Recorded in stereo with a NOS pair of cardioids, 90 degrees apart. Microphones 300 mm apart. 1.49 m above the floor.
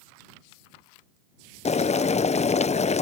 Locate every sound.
1.6 s boiling: 20° left